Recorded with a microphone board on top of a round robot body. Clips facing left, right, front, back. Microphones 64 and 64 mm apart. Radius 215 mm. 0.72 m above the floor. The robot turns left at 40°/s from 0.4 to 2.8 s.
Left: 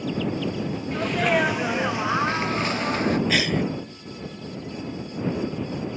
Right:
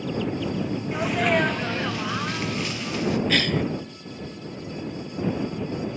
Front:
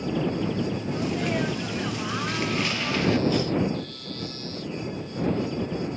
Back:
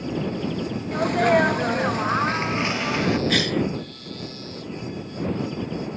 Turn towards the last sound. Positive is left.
turn(degrees=170)